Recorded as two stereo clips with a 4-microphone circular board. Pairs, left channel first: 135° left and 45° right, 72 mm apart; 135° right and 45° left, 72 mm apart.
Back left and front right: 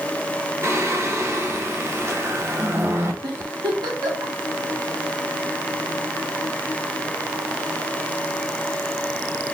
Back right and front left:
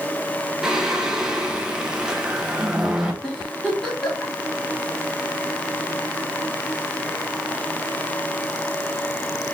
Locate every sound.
0.6 s singing: 30° right, 1.0 m
3.2 s a giggle: 50° right, 2 m